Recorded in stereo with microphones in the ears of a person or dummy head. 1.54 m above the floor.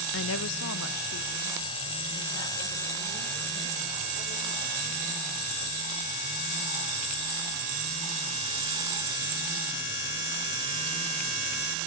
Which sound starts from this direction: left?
A woman speaking, at 0.1 s.